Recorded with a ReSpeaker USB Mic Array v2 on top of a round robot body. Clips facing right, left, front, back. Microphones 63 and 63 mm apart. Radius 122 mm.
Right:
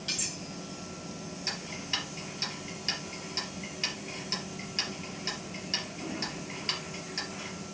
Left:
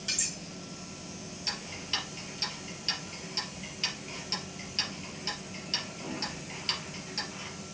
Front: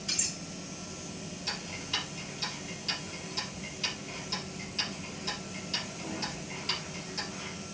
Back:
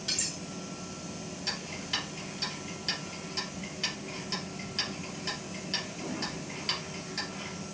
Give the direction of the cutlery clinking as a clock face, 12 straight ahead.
6 o'clock.